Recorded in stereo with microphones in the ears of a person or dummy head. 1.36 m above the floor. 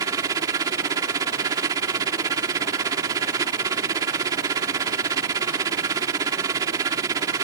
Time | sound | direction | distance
0.0 | a machine running | 20° right (ahead or behind) | ?